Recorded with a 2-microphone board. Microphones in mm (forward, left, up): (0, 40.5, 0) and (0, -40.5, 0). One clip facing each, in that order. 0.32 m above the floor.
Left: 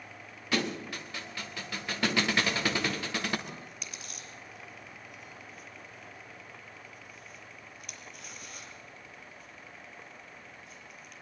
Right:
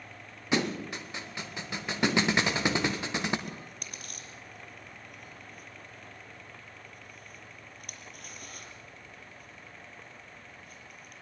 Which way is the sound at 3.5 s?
50° right (ahead or behind).